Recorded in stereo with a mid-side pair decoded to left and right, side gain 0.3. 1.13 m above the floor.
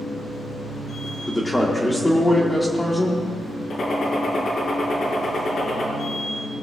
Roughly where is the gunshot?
Ahead left.